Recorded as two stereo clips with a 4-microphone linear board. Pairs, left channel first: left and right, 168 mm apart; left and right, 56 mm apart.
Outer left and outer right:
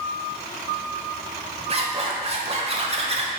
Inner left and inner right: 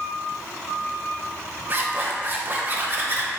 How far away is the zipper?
About 0.5 m.